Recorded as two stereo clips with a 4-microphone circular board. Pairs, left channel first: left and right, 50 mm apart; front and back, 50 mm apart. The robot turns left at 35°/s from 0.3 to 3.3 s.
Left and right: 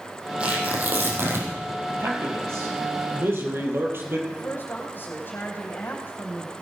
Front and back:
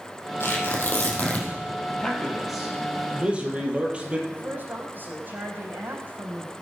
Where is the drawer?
I don't hear a drawer.